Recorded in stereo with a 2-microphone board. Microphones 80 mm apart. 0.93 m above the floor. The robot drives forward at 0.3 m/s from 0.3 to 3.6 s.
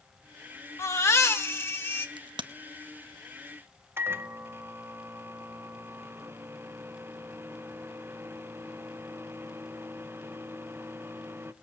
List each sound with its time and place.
0.8 s a baby crying: 35° left (ahead or behind), 1.2 m; by 2.1 s 30° left (ahead or behind), 1.6 m
2.2 s a crack: 75° right (ahead or behind), 0.7 m
4.0 s a microwave: 30° right (ahead or behind), 0.5 m